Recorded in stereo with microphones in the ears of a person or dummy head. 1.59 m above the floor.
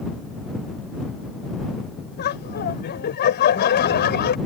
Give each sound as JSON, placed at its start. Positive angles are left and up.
{"t": 2.2, "sound": "laughter", "side_deg": 50}